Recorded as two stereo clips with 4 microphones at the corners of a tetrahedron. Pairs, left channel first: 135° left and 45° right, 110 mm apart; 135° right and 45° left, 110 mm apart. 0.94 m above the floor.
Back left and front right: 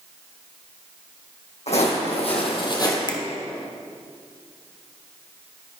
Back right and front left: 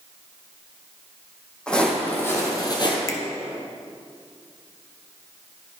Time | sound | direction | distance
1.7 | footsteps | 145° left | 3 m
3.1 | a finger snap | 170° left | 0.9 m